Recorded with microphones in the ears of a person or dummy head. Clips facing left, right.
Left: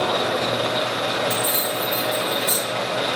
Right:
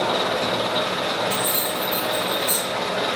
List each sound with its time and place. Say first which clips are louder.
0.0 s an engine running: left 1 dB; 30° left (ahead or behind), 1.3 m
1.3 s keys jangling: left 1 dB; 45° left (ahead or behind), 1.7 m